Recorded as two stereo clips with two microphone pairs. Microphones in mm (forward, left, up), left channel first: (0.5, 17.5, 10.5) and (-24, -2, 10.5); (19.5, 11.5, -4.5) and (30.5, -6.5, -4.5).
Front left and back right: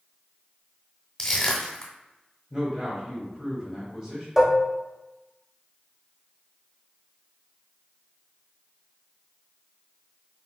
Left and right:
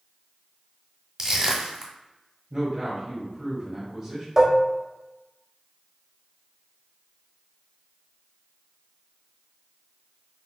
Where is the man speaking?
110° right, 1.3 m.